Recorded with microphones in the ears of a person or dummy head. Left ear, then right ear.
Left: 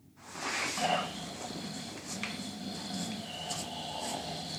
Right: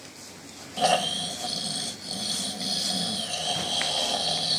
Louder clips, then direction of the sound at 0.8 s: Right 14 dB; 55° right (ahead or behind).